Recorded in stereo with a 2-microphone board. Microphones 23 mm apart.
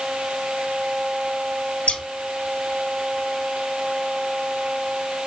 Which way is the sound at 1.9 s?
45° left (ahead or behind).